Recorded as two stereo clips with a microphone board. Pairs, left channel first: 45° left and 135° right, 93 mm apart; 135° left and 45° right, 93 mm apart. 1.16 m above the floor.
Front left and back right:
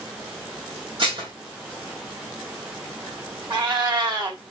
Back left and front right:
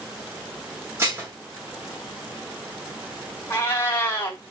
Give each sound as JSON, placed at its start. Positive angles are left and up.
{"t": 1.0, "sound": "dishes clattering", "azimuth_deg": -110, "distance_m": 2.0}
{"t": 3.5, "sound": "a cat meowing", "azimuth_deg": -165, "distance_m": 1.7}